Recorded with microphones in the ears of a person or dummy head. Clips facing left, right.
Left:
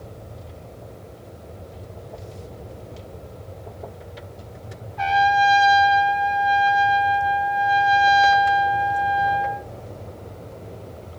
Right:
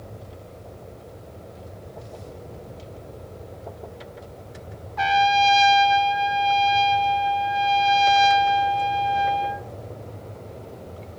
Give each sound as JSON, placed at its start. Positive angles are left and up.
{"t": 5.0, "sound": "a trumpet", "side_deg": -70, "distance_m": 0.7}